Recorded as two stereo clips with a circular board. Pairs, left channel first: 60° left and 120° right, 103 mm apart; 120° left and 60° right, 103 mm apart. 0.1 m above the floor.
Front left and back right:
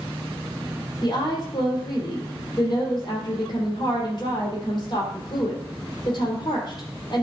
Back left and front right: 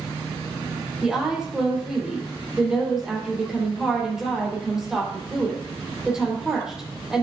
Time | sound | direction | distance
1.0 | a woman speaking | 25° left | 4 m